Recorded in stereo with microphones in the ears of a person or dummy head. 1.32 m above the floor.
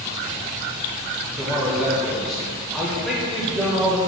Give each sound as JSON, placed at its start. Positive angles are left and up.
{"t": 1.4, "sound": "a man speaking", "side_deg": 0, "distance_m": 0.7}